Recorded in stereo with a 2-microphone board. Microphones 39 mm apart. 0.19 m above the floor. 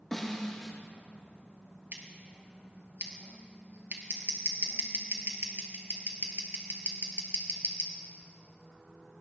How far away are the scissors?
About 2.5 m.